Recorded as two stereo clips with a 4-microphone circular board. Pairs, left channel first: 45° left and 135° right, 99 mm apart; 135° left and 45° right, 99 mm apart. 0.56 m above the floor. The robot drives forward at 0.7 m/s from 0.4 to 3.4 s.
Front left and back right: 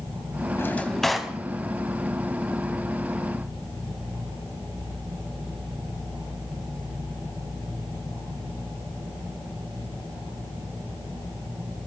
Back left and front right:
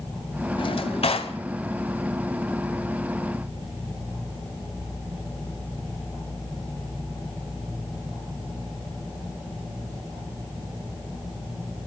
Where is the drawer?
105° left, 0.6 m; by 1.4 s 140° left, 0.9 m.